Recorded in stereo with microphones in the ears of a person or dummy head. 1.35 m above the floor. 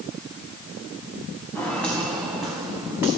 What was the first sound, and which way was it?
Footsteps, 10° left (ahead or behind).